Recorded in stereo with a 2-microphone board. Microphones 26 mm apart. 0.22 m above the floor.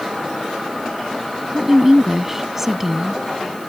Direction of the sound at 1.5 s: 15° right (ahead or behind).